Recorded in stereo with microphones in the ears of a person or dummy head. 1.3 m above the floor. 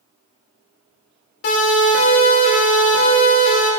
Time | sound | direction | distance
1.4 | a siren | 60° left (ahead or behind) | 5.5 m